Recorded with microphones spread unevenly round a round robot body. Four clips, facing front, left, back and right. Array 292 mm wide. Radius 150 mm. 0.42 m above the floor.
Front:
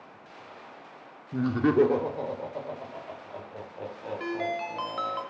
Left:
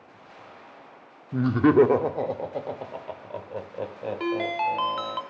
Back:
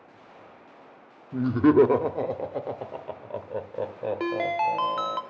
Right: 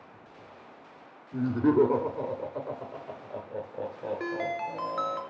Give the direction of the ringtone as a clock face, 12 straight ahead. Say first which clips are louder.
Left 8 dB, back 5 dB; 6 o'clock.